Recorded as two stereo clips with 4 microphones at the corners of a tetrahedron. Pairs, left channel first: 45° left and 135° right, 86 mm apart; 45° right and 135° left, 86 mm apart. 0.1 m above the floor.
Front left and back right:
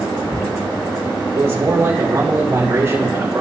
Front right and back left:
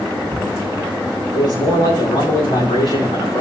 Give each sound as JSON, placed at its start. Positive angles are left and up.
{"t": 1.3, "sound": "a man speaking", "azimuth_deg": -65, "distance_m": 8.5}